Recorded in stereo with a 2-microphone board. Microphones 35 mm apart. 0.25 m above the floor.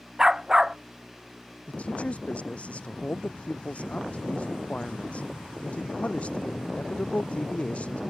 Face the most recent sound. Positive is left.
turn(degrees=35)  # may be behind; listen again after turning